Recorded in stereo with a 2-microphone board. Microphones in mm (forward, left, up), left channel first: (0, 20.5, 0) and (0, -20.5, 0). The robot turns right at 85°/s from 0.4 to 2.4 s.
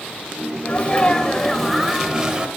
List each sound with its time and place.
0.7 s a sneeze: 30° left (ahead or behind), 0.9 m; by 2.5 s 25° right (ahead or behind), 0.9 m